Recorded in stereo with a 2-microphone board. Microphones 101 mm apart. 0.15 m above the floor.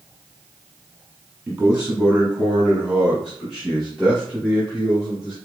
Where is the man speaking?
15° right (ahead or behind), 1.6 m; by 5.3 s 5° left (ahead or behind), 3.5 m.